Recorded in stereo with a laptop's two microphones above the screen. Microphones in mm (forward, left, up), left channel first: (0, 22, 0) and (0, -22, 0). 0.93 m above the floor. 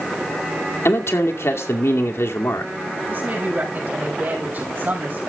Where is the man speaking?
75° left (ahead or behind), 2 m.